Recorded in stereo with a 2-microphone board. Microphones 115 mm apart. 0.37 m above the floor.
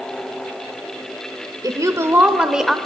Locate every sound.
1.6 s a woman speaking: 35° right (ahead or behind), 1.1 m; by 2.8 s centre (ahead or behind), 1.0 m